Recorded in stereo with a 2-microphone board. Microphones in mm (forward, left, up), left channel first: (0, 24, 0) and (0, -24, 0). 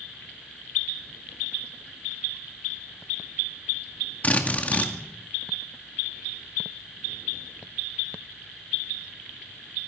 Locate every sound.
4.2 s a drill: 30° left (ahead or behind), 2.0 m